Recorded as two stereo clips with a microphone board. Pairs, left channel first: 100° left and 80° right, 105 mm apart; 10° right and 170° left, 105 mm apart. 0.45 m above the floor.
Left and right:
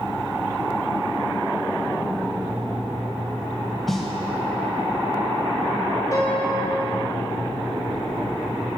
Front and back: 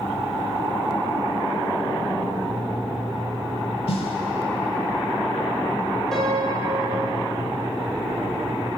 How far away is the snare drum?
About 0.9 m.